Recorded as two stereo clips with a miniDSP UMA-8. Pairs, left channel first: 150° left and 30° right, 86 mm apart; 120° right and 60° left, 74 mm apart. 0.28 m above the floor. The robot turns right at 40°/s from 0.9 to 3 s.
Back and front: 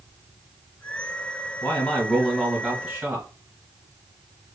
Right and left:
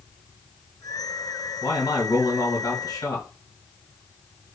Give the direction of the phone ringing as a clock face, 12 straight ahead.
I don't hear a phone ringing.